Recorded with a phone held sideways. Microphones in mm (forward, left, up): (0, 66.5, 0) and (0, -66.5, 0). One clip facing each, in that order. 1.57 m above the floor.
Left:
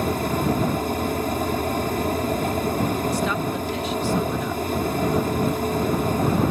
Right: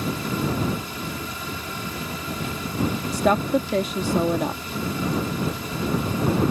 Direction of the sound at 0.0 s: 50° left (ahead or behind).